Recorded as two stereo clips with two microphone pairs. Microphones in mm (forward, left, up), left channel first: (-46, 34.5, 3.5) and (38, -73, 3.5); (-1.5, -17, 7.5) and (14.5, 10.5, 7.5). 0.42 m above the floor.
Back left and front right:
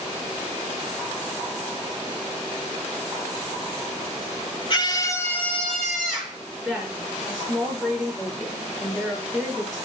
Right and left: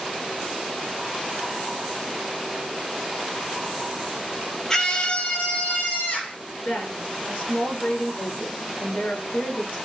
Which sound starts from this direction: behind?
A scream, at 4.7 s.